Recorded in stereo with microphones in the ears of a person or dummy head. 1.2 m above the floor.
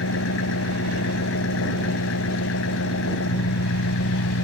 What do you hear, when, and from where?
0.0 s an engine running: 65° left (ahead or behind)